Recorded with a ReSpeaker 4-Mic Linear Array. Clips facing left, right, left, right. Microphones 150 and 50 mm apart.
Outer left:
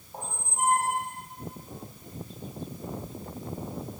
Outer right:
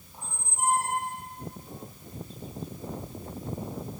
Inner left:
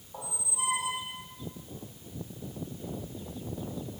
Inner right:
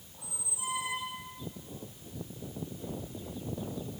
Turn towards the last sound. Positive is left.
turn(degrees=50)  # may be behind; listen again after turning